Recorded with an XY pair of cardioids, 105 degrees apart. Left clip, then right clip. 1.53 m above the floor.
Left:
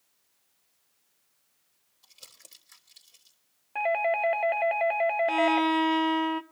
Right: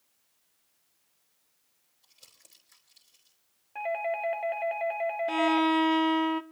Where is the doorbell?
45° left, 0.7 m.